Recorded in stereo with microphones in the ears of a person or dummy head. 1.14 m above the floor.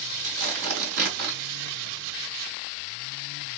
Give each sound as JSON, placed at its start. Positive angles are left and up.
{"t": 0.2, "sound": "tearing paper", "side_deg": -65, "distance_m": 2.0}